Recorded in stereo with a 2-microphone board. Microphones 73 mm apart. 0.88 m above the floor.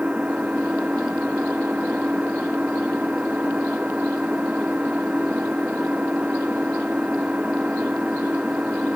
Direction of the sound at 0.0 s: 15° right (ahead or behind).